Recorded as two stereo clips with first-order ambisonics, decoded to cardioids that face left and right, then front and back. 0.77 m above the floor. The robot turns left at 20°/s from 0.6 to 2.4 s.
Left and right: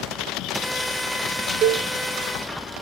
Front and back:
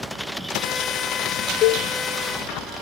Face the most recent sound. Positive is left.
turn(degrees=-65)